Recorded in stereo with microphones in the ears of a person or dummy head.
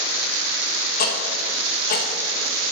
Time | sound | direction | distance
1.0 | ticking | 55° left (ahead or behind) | 1.0 m